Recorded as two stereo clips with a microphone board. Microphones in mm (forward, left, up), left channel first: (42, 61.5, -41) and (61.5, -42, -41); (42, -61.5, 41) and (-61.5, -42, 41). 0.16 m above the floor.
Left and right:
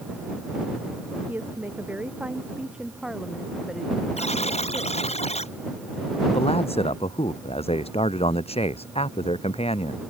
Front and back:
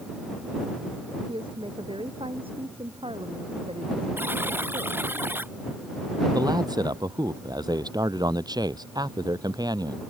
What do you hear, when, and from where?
1.3 s a woman speaking: 150° right; by 5.2 s 175° right
4.2 s a buzzer: 100° left
6.3 s a man speaking: 120° left